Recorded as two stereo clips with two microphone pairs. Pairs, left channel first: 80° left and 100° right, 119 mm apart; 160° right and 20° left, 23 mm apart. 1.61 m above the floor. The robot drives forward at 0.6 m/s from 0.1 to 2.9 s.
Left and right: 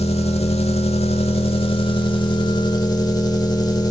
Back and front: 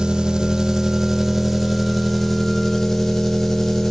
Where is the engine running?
70° left, 1.7 m; by 3.9 s 130° left, 2 m.